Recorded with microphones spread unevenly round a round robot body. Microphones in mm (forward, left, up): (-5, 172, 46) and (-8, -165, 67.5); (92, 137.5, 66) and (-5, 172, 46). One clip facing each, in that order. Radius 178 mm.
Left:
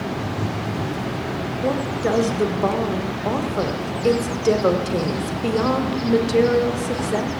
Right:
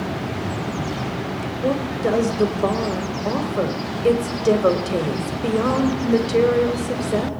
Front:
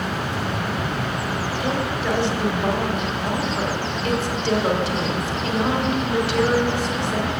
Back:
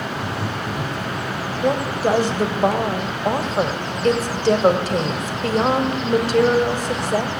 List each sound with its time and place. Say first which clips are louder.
0.2 s breathing: even, even; 150° left, 8 m
1.6 s a woman speaking: right 1 dB, back 6 dB; 170° left, 2 m